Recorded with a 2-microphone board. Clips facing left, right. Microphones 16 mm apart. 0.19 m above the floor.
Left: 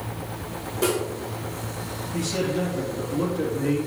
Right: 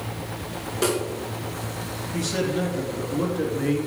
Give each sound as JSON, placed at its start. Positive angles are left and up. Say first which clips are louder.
{"t": 0.8, "sound": "a snare drum", "louder": "even", "side_deg": -20, "distance_m": 2.5}
{"t": 2.1, "sound": "a man speaking", "louder": "even", "side_deg": -25, "distance_m": 3.0}